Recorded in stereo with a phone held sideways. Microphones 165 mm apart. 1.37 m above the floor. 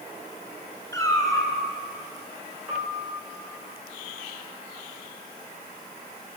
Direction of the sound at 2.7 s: 15° right (ahead or behind).